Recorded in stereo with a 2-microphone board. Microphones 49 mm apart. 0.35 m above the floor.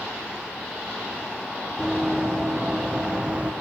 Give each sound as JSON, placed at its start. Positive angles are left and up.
{"t": 1.8, "sound": "running footsteps", "side_deg": -5, "distance_m": 3.5}